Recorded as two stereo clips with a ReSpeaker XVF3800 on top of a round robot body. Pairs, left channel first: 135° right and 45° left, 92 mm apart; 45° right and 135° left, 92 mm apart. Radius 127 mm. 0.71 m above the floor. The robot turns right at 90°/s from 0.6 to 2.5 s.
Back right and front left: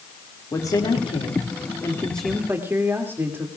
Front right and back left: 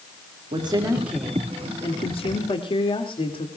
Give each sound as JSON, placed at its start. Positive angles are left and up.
{"t": 0.5, "sound": "a woman speaking", "azimuth_deg": 165, "distance_m": 2.0}